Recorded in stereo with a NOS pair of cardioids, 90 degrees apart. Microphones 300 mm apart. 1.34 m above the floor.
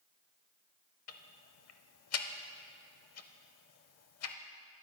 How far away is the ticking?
About 0.7 m.